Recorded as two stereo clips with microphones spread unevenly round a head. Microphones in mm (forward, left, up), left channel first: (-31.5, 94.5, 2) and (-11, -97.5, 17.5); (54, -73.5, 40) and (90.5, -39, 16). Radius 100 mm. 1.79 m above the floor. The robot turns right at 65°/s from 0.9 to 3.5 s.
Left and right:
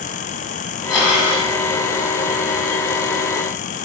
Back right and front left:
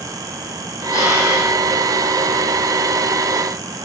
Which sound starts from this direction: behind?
Breathing, at 0.9 s.